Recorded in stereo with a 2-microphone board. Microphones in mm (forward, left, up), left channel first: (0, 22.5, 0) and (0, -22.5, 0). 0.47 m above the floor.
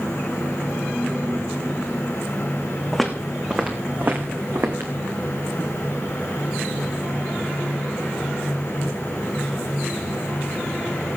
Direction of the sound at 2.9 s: 5° right (ahead or behind).